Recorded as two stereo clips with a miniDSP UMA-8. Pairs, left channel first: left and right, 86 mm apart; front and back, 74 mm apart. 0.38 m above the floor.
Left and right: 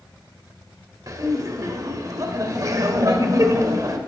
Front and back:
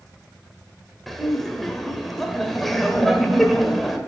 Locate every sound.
1.1 s laughter: 90° right, 1.4 m